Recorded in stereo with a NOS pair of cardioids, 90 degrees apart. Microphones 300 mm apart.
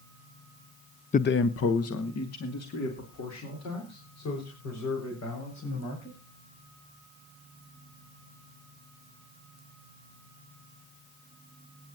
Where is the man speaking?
25° left, 0.5 m; by 6.2 s 65° left, 8.5 m.